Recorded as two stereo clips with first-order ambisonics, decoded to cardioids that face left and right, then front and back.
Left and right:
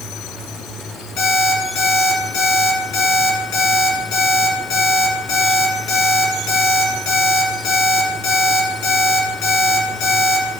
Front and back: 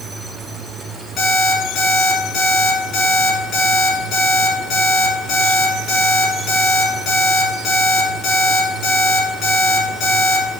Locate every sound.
1.2 s an alarm clock: 60° left, 4.5 m